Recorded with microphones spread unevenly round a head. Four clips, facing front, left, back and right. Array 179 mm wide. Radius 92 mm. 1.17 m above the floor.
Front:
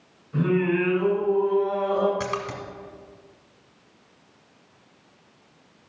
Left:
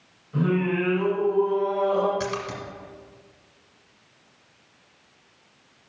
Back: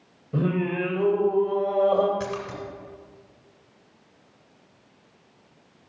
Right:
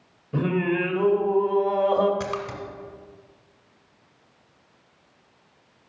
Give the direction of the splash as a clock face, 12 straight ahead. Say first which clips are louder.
Even, front 2 dB; 12 o'clock.